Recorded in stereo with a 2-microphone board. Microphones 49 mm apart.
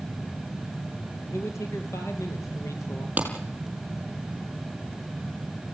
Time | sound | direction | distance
1.3 | a man speaking | 75° left (ahead or behind) | 4.5 m
3.2 | a clap | 30° right (ahead or behind) | 5.5 m